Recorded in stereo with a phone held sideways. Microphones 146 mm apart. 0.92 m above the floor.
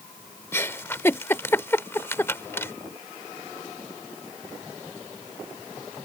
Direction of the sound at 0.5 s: 15° left (ahead or behind).